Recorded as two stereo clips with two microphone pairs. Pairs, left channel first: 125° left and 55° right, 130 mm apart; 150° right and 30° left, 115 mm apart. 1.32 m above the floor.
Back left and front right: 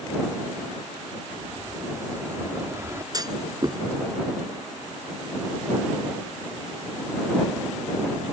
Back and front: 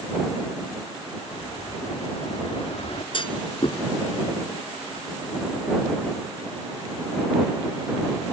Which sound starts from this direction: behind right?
An explosion, at 1.3 s.